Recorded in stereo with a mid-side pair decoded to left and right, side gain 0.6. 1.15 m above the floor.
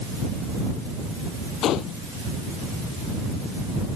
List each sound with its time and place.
1.6 s a gunshot: 60° left